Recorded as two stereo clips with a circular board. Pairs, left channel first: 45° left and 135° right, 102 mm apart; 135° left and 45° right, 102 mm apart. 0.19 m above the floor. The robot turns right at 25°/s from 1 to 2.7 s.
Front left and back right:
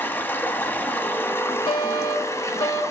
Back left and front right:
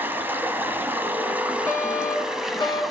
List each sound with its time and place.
0.0 s running water: straight ahead, 0.9 m; by 2.9 s 45° left, 0.9 m
1.7 s a fire alarm: 70° left, 4 m; by 2.8 s 100° left, 4 m